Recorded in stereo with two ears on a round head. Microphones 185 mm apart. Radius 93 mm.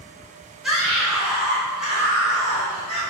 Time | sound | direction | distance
0.6 | a scream | centre (ahead or behind) | 3.5 m